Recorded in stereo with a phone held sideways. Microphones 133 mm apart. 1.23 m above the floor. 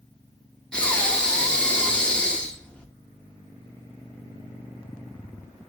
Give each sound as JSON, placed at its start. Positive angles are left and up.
{"t": 0.7, "sound": "breathing", "side_deg": 5, "distance_m": 0.7}